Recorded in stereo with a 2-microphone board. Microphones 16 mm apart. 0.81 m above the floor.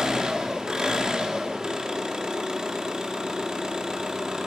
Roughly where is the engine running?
Right.